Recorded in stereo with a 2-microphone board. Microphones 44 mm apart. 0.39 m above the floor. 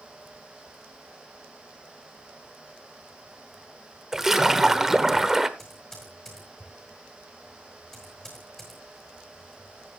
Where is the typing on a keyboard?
10° left (ahead or behind), 8 m.